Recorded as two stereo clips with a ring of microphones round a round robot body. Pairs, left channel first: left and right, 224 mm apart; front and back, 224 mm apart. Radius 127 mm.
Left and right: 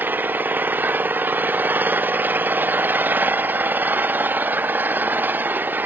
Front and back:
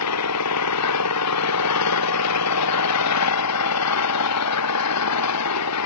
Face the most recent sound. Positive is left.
turn(degrees=-10)